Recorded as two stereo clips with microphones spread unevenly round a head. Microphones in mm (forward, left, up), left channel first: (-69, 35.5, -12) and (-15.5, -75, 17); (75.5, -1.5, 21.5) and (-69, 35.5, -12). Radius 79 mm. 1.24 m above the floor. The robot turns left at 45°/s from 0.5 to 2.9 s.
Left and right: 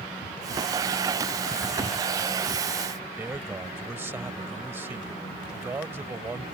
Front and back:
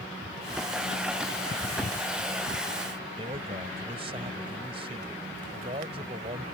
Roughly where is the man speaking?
Behind right.